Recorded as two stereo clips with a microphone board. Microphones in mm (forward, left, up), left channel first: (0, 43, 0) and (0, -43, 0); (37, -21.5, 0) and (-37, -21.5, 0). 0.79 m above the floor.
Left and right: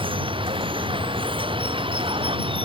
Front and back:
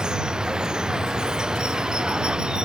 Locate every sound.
0.0 s running water: 100° right